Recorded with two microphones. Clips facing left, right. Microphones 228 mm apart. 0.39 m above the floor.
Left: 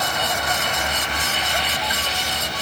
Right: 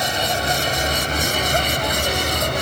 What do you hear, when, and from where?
0.0 s a vehicle: 30° right (ahead or behind); by 2.6 s 60° right (ahead or behind)